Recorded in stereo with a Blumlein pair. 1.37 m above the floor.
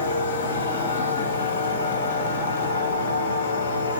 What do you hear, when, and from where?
0.0 s a machine running: 60° left, 2.5 m